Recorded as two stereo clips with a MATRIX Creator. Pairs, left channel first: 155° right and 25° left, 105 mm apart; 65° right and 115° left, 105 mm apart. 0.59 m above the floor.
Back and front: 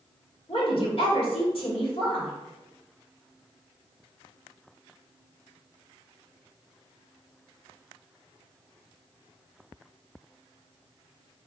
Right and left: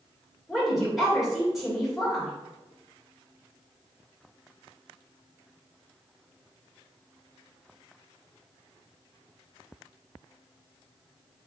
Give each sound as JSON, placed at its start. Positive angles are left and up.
{"t": 0.5, "sound": "a woman speaking", "azimuth_deg": -160, "distance_m": 2.0}